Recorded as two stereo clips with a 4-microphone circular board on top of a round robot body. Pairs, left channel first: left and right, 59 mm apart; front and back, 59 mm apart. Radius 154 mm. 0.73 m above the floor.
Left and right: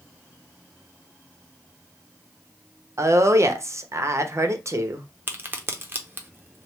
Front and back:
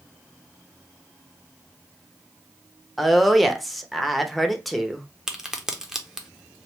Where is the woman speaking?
90° right, 0.9 m.